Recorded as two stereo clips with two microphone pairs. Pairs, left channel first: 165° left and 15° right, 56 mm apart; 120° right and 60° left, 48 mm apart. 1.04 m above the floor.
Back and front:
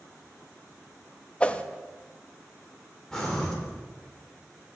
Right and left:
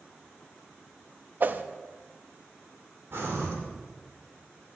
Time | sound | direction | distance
1.4 | a whoosh | 100° left | 0.5 m
3.1 | breathing | 85° left | 2.5 m